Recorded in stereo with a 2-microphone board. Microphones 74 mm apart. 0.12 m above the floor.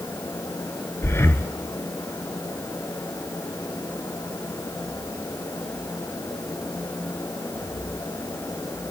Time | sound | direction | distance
1.0 | breathing | 35° left (ahead or behind) | 0.8 m